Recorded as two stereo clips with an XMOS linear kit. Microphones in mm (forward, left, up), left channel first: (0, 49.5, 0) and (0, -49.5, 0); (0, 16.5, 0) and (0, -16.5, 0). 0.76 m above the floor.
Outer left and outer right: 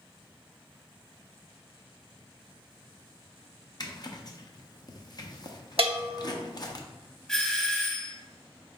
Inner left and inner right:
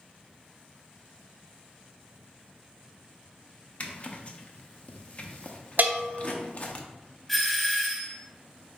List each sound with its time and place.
3.8 s a zipper: 40° left (ahead or behind), 0.6 m
5.8 s a bell: 70° right (ahead or behind), 0.8 m
7.3 s a doorbell: 10° left (ahead or behind), 0.9 m